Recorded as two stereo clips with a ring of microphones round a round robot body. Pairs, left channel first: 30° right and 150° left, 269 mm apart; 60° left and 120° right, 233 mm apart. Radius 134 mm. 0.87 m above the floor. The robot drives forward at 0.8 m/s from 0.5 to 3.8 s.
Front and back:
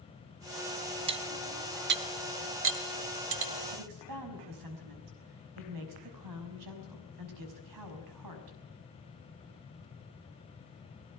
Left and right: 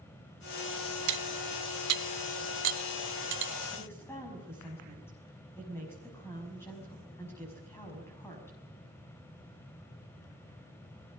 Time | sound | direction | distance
1.1 | cutlery clinking | 140° right | 0.7 m
3.7 | a woman speaking | 140° left | 5.5 m